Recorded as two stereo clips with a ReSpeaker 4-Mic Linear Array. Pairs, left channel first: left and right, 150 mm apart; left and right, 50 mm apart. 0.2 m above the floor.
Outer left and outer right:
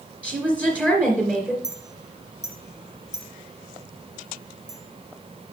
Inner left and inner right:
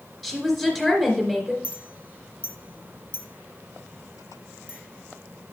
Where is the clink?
25° right (ahead or behind), 1.6 m.